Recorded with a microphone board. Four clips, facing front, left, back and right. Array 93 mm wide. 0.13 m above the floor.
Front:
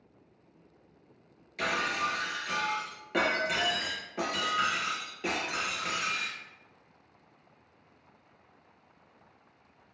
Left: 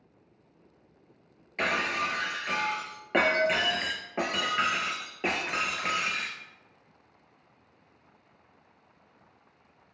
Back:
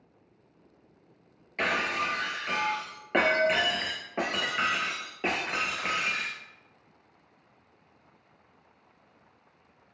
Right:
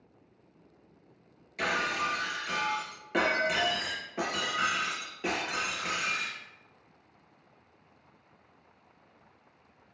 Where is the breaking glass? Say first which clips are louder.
Left 1 dB, back 2 dB; 135° left, 0.6 m.